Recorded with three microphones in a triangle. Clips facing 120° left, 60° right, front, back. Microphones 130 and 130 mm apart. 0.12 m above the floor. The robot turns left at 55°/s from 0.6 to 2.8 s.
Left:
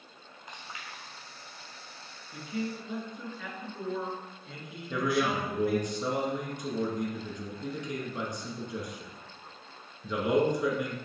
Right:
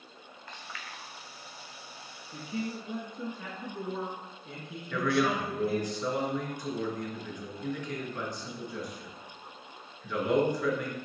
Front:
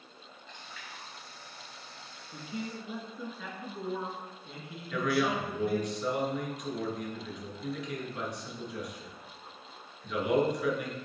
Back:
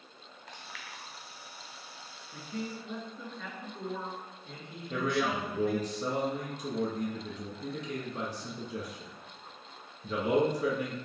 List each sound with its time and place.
0.5 s chewing: 165° right, 1.2 m; by 1.0 s 170° left, 1.2 m
2.3 s a man speaking: 50° right, 1.8 m; by 5.9 s 75° right, 1.8 m
4.9 s a man speaking: 175° left, 1.8 m